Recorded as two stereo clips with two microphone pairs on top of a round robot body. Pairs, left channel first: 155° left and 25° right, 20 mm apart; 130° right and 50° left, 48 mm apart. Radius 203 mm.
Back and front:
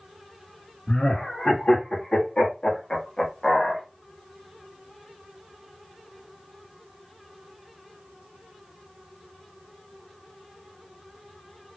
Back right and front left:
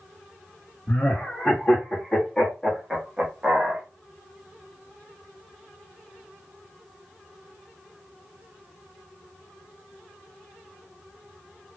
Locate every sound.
0.9 s laughter: straight behind, 2 m; by 3.8 s 80° left, 1.4 m